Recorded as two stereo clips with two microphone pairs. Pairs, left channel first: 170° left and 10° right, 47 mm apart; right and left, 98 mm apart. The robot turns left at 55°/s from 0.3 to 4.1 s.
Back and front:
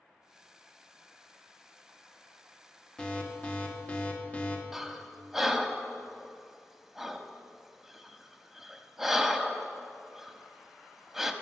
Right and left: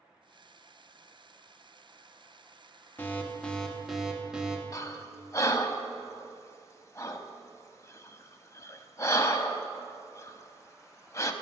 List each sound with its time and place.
3.0 s an alarm: 135° right, 1.0 m; by 4.6 s 165° left, 1.0 m
4.7 s breathing: 85° right, 0.5 m